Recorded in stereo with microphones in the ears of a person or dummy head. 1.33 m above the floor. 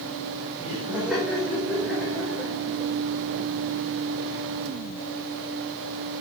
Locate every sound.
0.6 s laughter: 10° right (ahead or behind), 5 m; by 4.4 s 15° left (ahead or behind), 7 m